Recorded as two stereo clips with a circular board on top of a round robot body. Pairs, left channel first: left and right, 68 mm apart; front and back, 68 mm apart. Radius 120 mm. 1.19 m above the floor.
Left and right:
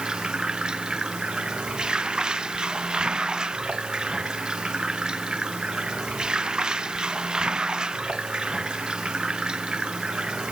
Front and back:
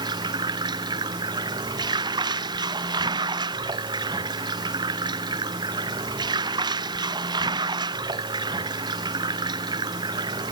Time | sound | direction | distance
0.0 | running water | 170° right | ?